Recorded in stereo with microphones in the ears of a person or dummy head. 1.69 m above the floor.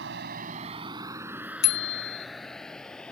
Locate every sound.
0.0 s a vehicle: 65° right (ahead or behind); by 3.1 s 10° left (ahead or behind)
1.6 s a bicycle bell: 55° left (ahead or behind)